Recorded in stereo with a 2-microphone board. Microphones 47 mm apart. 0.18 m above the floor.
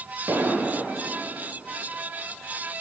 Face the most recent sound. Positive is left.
turn(degrees=-65)  # may be behind; listen again after turning